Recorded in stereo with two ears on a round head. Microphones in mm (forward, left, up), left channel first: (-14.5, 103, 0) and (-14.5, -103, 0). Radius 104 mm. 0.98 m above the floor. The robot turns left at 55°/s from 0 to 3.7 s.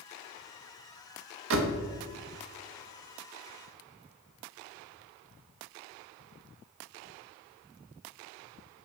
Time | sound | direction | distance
1.5 | a door slam | 65° right (ahead or behind) | 1.1 m